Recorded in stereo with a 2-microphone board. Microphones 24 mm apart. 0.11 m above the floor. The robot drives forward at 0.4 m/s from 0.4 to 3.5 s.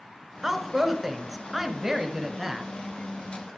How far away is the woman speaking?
About 1.1 m.